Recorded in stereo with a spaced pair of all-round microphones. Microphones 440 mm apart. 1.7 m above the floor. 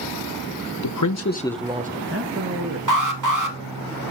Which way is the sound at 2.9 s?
45° right (ahead or behind).